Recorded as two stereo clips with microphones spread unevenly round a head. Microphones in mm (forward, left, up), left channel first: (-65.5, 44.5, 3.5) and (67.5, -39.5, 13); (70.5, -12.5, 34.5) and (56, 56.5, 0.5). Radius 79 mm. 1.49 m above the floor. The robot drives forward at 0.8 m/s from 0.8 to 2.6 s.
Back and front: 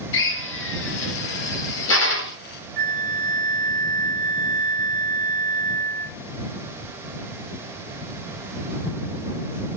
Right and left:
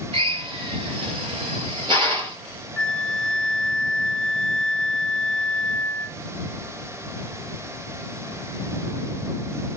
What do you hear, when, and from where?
0.1 s a drill: 150° left, 2 m; by 2.4 s 160° left, 3 m
2.8 s a flute: 45° right, 0.7 m